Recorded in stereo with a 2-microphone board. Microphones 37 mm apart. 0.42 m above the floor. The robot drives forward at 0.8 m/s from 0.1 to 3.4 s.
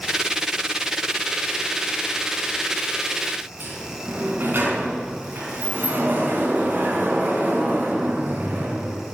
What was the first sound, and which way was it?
A sliding door, 55° right (ahead or behind).